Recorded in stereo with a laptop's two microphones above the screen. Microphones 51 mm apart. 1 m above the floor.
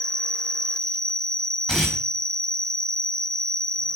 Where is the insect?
15° left (ahead or behind), 1.1 m.